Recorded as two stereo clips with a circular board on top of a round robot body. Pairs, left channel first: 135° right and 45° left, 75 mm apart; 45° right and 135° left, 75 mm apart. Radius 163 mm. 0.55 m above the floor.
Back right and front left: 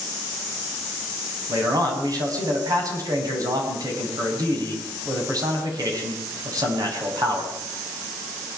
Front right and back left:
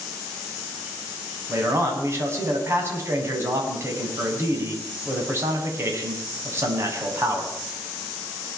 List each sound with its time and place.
1.5 s a man speaking: 80° left, 7.5 m